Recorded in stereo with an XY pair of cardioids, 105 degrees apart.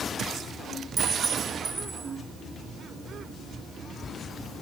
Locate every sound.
1.0 s a clink: 45° right, 3 m